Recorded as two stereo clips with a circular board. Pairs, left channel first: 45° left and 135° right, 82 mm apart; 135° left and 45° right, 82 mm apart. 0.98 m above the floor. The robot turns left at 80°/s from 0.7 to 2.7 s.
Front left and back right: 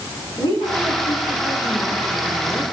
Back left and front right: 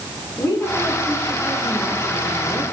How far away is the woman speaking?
About 8 m.